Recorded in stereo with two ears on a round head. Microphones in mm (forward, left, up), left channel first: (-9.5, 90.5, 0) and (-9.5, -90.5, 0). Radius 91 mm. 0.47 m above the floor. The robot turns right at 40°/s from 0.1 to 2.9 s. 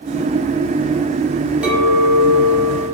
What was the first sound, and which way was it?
A clink, 5° right (ahead or behind).